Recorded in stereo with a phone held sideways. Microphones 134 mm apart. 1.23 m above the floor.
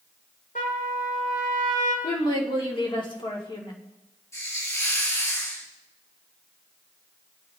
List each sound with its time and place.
0.6 s a trumpet: 85° left, 3 m
2.0 s a woman speaking: 40° left (ahead or behind), 2.5 m
4.3 s a hiss: 25° left (ahead or behind), 3.5 m